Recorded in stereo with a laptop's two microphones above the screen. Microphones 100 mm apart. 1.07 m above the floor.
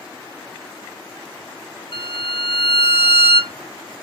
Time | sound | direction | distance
1.9 | a violin | 55° left (ahead or behind) | 0.5 m